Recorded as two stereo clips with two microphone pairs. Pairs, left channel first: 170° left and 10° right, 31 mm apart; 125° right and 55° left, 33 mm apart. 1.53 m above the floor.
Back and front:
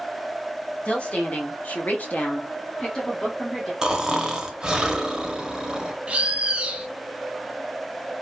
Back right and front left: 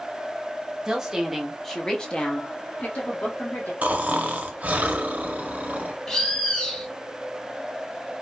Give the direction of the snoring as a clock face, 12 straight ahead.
10 o'clock.